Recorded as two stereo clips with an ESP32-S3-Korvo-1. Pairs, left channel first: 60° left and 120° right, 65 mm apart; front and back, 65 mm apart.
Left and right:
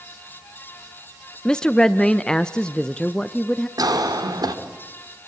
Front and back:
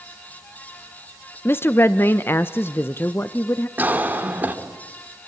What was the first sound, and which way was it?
A woman speaking, 10° right.